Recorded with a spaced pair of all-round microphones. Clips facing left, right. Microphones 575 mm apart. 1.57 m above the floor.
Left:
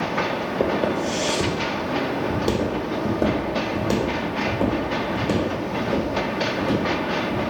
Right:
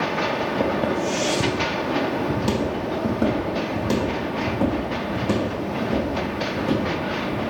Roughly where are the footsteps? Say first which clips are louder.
Left 2 dB; right.